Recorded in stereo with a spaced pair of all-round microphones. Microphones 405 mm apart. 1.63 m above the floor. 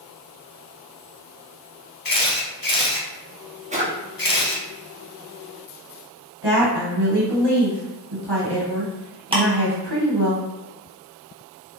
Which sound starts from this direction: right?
A woman speaking, at 6.4 s.